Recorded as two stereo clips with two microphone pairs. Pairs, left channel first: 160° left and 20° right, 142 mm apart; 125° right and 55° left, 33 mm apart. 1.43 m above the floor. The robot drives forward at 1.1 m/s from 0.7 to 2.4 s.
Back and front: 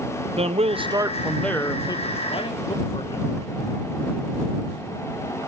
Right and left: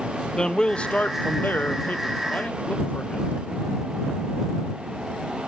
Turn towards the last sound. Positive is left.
turn(degrees=-150)